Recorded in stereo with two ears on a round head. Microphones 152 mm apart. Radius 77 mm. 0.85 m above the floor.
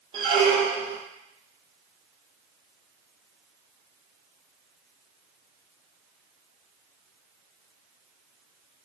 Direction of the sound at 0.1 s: 35° right (ahead or behind).